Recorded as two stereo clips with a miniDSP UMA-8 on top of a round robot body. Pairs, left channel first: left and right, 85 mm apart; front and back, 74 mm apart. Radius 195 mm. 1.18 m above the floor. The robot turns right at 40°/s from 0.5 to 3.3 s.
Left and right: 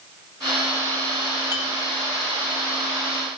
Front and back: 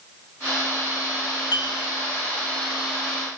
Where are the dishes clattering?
30° right, 2.0 m; by 1.8 s 20° right, 2.0 m.